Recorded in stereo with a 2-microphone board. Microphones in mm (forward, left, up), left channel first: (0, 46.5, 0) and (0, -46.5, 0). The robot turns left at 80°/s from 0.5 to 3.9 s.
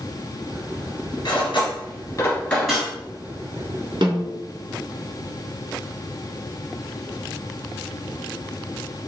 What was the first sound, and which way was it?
Cutlery clinking, 55° left (ahead or behind).